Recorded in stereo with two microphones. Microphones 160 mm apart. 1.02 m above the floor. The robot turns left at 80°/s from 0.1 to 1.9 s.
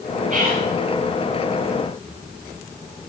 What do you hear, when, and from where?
0.3 s whispering: 50° right (ahead or behind), 5 m; by 0.7 s 75° right (ahead or behind), 5 m